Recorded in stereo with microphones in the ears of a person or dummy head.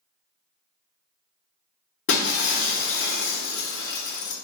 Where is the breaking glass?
60° left (ahead or behind), 1.0 m.